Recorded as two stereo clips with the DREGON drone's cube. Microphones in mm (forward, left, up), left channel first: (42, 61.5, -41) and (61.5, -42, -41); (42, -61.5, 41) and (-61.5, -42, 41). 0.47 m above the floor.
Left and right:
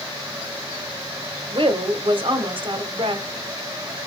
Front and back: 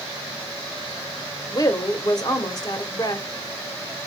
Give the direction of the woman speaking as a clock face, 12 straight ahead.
2 o'clock.